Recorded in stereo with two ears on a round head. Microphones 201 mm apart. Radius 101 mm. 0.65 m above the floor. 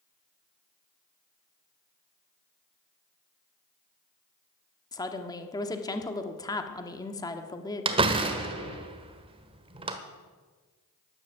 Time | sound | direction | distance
4.9 | a woman speaking | 15° left (ahead or behind) | 1.3 m
7.8 | a door slam | 25° right (ahead or behind) | 1.3 m